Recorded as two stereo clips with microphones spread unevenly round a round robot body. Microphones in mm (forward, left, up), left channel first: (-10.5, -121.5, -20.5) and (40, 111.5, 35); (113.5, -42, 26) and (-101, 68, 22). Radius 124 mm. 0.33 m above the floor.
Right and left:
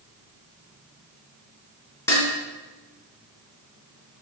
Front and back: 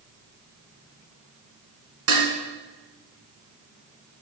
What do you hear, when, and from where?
2.1 s dishes clattering: straight behind, 2.5 m